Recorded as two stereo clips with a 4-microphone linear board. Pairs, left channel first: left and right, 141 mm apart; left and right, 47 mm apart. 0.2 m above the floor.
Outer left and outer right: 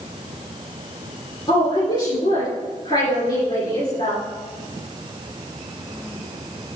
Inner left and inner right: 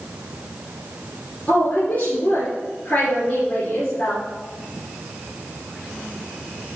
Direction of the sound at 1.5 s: 35° left (ahead or behind).